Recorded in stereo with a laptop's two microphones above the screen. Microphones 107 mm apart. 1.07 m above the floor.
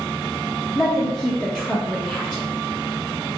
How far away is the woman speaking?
About 0.7 m.